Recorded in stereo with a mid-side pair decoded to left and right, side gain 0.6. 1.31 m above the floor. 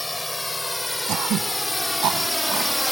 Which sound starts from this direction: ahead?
A drone, at 0.0 s.